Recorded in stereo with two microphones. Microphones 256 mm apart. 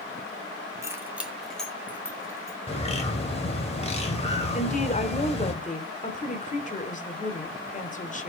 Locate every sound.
0.8 s keys jangling: 10° right (ahead or behind), 1.6 m; by 2.6 s 15° left (ahead or behind), 2.5 m
2.7 s a bird: 25° left (ahead or behind), 2 m
4.5 s a woman speaking: 30° left (ahead or behind), 1.4 m